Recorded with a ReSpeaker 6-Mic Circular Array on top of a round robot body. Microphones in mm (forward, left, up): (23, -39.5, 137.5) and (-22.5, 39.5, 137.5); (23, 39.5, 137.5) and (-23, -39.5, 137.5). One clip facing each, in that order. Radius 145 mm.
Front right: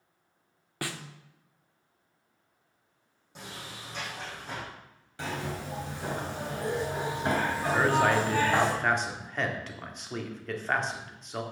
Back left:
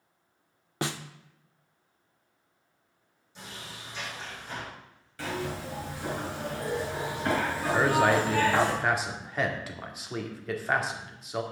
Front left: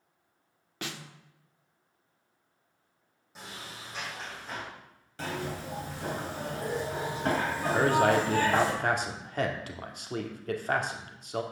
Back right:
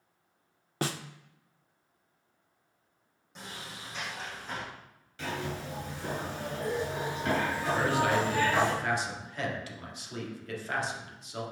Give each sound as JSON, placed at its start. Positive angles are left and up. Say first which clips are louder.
{"t": 0.8, "sound": "a snare drum", "louder": "back left 4 dB, back right 7 dB", "azimuth_deg": -175, "distance_m": 0.5}
{"t": 3.4, "sound": "a sliding door", "louder": "front right 1 dB, even", "azimuth_deg": -25, "distance_m": 5.5}
{"t": 5.2, "sound": "a zipper", "louder": "back left 1 dB, front left 1 dB", "azimuth_deg": 10, "distance_m": 3.0}
{"t": 7.7, "sound": "a man speaking", "louder": "back left 1 dB, front left 4 dB", "azimuth_deg": 35, "distance_m": 2.0}